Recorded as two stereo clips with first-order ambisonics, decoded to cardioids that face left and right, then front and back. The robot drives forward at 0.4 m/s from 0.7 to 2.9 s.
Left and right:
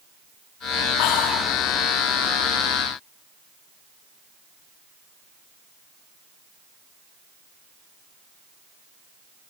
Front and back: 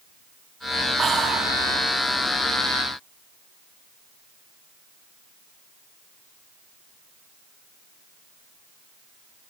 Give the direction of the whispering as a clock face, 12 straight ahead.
8 o'clock.